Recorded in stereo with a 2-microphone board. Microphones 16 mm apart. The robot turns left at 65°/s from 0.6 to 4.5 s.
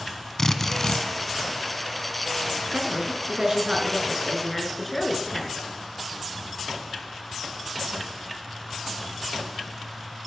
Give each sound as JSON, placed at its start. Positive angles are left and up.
{"t": 0.4, "sound": "a drill", "side_deg": 30, "distance_m": 1.1}
{"t": 2.7, "sound": "a woman speaking", "azimuth_deg": -70, "distance_m": 4.5}